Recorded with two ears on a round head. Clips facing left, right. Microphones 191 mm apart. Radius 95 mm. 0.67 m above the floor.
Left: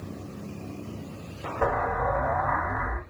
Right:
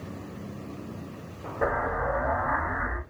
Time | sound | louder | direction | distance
1.6 | an explosion | left 1 dB | 10° right (ahead or behind) | 1.6 m